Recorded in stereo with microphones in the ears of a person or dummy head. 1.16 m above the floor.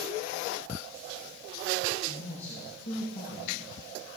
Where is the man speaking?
50° left (ahead or behind), 6 m.